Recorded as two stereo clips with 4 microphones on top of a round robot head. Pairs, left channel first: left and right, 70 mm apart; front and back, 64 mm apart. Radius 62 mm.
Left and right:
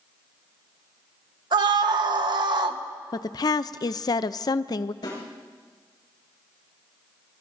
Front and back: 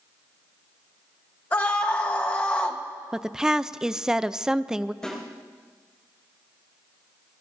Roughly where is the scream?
Right.